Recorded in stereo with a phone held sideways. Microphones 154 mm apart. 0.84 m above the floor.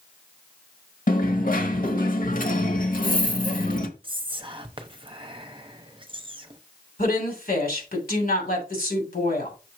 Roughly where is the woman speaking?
Left.